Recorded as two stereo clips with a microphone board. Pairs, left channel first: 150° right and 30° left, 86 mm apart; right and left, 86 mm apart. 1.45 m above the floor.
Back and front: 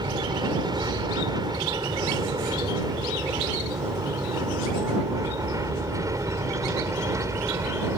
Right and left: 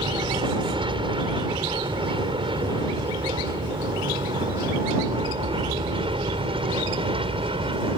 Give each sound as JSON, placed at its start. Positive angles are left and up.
{"t": 0.0, "sound": "an aircraft", "azimuth_deg": 65}